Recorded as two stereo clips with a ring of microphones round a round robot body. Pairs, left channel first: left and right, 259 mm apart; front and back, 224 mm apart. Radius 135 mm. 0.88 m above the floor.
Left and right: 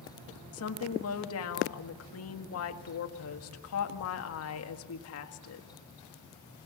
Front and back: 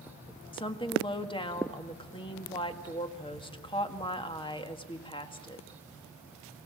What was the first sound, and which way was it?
A woman speaking, 65° left.